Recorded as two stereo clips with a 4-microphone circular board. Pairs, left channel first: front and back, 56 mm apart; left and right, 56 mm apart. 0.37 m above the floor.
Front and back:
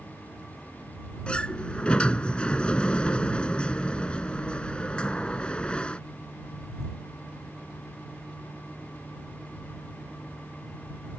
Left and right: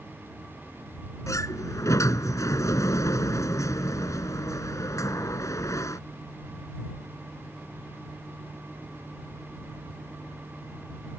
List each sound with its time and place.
1.3 s a sliding door: 70° left